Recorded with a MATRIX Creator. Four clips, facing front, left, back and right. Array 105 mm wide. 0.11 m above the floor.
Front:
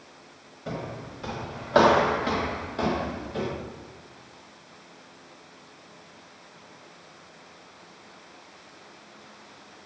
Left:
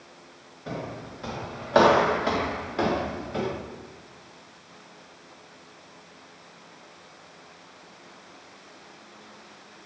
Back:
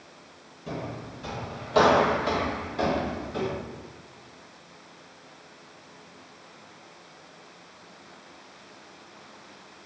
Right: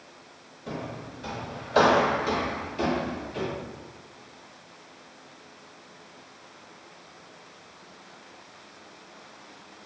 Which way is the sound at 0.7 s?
30° left.